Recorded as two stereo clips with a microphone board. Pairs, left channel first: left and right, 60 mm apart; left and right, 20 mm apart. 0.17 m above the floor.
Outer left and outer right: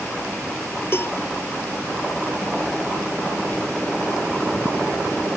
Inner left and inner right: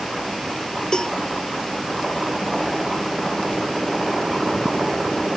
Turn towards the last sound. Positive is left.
turn(degrees=40)  # may be behind; listen again after turning